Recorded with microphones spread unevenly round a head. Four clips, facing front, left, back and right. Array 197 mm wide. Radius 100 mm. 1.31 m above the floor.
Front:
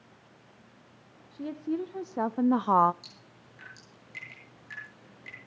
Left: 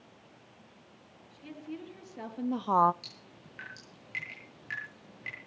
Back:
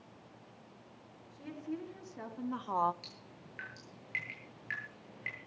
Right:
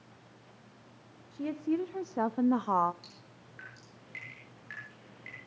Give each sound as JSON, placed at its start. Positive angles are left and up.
{"t": 1.3, "sound": "a woman speaking", "azimuth_deg": -55, "distance_m": 1.7}
{"t": 3.0, "sound": "dripping", "azimuth_deg": 135, "distance_m": 9.5}